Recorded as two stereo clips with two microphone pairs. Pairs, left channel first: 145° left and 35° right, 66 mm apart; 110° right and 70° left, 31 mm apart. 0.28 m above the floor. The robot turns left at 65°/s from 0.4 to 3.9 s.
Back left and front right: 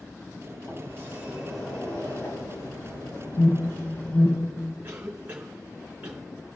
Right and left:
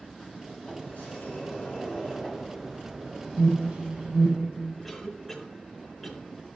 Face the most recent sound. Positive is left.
turn(degrees=-25)